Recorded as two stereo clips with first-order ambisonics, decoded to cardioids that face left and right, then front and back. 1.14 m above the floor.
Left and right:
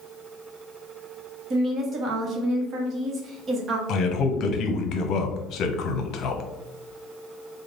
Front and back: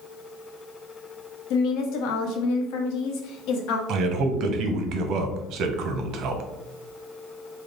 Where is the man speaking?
140° left, 0.6 m.